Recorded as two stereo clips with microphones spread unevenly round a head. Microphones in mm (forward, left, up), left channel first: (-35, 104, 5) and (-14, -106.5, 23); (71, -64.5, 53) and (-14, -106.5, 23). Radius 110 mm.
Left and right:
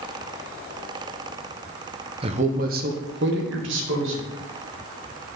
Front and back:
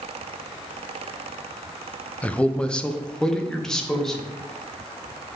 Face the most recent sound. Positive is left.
turn(degrees=-55)